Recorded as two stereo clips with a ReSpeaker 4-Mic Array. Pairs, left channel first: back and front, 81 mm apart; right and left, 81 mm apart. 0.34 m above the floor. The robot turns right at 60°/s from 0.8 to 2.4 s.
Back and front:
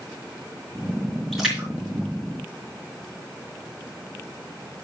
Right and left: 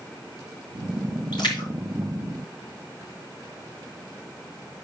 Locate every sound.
1.3 s a splash: 95° right, 4 m; by 3.1 s 30° right, 4 m